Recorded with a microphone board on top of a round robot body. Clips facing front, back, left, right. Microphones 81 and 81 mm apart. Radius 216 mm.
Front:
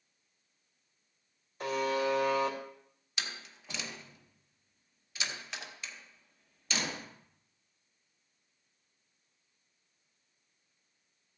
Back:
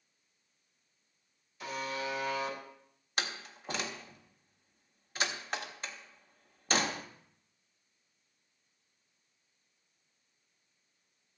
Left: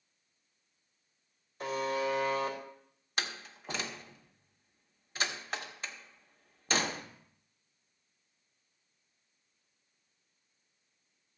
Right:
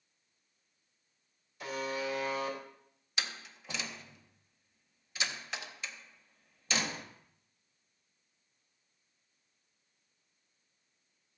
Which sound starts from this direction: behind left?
A door slam, at 3.2 s.